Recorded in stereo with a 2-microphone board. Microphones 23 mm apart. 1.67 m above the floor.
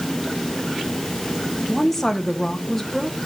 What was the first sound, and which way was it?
A woman speaking, 15° left (ahead or behind).